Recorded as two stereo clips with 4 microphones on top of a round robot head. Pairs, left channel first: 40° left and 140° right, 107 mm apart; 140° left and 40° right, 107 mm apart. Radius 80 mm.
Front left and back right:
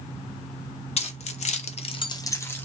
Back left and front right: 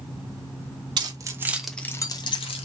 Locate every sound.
1.0 s keys jangling: 10° left, 1.1 m; by 2.7 s 115° left, 1.2 m